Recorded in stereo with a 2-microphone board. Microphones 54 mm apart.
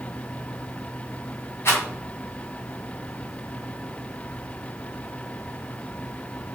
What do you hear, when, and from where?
1.6 s a rattle: 50° left (ahead or behind), 2.5 m